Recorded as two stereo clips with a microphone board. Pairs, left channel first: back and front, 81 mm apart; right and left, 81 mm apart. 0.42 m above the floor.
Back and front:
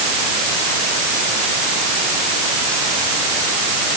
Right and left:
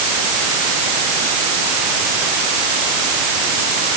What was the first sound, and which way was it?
Only background noise.